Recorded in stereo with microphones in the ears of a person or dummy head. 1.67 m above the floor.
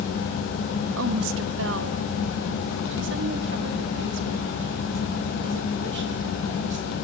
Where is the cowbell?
No cowbell in this recording.